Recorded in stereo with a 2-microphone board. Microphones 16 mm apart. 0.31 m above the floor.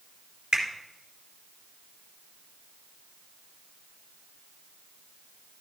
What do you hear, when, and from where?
0.5 s a finger snap: 65° right (ahead or behind), 3 m